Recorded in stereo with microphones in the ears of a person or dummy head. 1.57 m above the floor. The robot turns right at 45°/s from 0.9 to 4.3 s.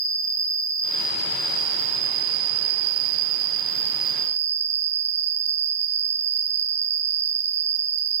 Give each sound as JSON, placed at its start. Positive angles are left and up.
{"t": 0.0, "sound": "an insect", "azimuth_deg": -165, "distance_m": 0.8}